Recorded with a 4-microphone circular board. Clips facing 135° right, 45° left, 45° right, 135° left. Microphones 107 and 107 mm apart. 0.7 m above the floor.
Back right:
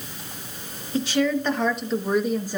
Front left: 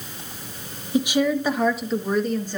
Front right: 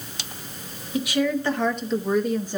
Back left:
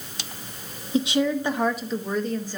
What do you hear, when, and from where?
0.9 s a woman speaking: 105° left, 1.1 m; by 2.6 s 85° right, 1.0 m